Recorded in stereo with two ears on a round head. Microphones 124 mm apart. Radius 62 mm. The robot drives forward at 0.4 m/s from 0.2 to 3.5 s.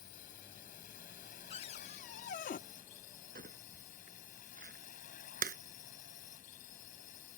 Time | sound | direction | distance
0.0 | a drone | 70° left (ahead or behind) | ?
1.5 | a cupboard door | 45° left (ahead or behind) | ?
3.4 | crumpling | 70° right (ahead or behind) | ?